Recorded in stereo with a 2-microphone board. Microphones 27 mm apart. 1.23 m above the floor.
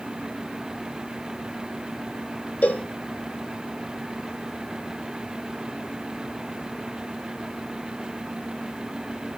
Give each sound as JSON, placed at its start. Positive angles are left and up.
{"t": 2.6, "sound": "a cowbell", "side_deg": 55, "distance_m": 0.6}